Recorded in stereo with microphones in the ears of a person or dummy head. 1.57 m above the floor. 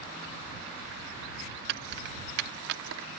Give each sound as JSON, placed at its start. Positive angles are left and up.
{"t": 1.7, "sound": "keys jangling", "side_deg": -60}